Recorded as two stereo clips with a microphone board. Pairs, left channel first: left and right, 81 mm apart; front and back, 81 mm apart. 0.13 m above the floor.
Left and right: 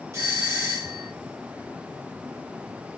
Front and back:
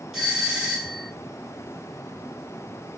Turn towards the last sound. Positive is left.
turn(degrees=-95)